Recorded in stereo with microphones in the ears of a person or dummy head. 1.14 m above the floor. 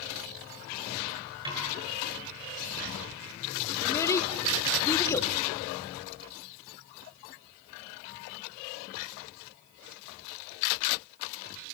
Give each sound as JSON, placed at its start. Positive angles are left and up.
{"t": 1.4, "sound": "a snare drum", "side_deg": -30, "distance_m": 8.5}
{"t": 3.8, "sound": "a child speaking", "side_deg": 25, "distance_m": 2.0}